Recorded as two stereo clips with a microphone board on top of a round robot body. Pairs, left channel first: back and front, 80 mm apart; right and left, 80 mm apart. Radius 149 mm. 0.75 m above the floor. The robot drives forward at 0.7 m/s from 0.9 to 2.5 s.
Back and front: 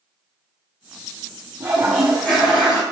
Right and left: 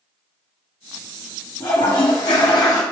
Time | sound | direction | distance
1.6 | a toilet flushing | 60° right | 0.8 m